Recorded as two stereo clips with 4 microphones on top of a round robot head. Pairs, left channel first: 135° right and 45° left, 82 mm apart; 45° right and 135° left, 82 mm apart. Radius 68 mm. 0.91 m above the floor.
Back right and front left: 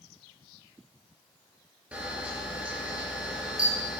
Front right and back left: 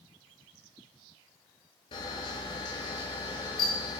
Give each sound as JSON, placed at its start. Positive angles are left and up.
{"t": 1.9, "sound": "a camera shutter", "azimuth_deg": -30, "distance_m": 6.0}